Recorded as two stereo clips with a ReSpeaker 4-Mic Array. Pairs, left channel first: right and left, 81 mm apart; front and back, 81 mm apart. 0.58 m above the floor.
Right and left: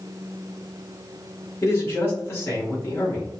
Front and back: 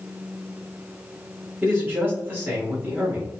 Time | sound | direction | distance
1.6 | a man speaking | 130° right | 1.5 m